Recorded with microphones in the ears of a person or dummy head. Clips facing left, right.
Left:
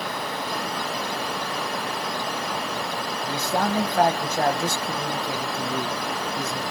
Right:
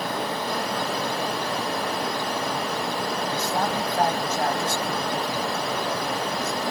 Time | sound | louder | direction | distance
3.2 | a man speaking | left 4 dB | 60° left (ahead or behind) | 1.1 m